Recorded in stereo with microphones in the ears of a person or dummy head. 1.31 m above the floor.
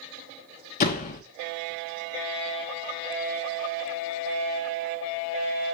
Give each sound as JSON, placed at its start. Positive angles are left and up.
{"t": 0.8, "sound": "a door slam", "side_deg": 40, "distance_m": 1.2}